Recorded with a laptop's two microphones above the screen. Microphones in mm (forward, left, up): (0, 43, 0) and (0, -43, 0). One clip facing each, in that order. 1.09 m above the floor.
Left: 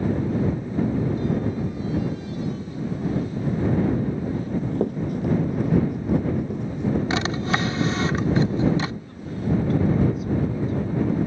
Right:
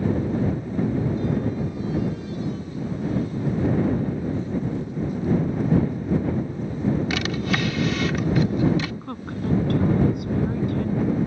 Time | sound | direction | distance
4.3 | running footsteps | 50° left (ahead or behind) | ?
7.1 | a drawer | 30° left (ahead or behind) | ?
9.0 | a woman speaking | 65° right (ahead or behind) | ?